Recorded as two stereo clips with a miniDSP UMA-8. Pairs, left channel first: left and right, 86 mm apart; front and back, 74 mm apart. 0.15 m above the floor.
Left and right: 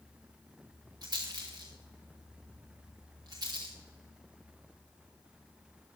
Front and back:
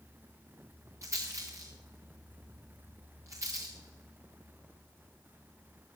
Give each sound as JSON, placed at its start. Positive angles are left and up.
{"t": 1.0, "sound": "a rattle", "azimuth_deg": -135, "distance_m": 4.0}